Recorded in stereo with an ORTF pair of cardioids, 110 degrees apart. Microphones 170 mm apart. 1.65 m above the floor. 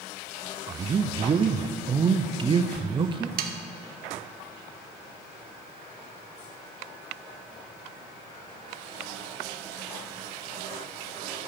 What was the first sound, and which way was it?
A man speaking, 30° right.